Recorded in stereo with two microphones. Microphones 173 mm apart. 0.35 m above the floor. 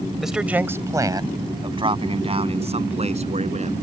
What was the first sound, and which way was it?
A man speaking, centre (ahead or behind).